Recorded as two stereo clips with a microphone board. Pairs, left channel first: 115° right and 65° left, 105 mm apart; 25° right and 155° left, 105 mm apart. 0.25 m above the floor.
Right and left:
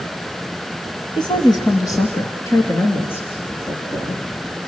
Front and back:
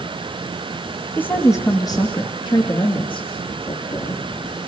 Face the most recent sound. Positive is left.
turn(degrees=-40)